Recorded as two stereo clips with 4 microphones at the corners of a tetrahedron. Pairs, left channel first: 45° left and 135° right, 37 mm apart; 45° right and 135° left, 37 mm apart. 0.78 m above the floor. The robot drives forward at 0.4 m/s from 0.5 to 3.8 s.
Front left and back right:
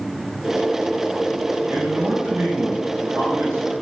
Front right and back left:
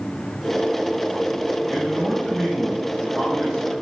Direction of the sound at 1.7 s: 120° right.